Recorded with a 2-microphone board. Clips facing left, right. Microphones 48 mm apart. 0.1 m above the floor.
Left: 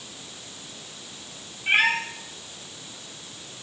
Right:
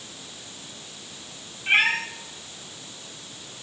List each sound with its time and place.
1.7 s a cat meowing: centre (ahead or behind), 4.5 m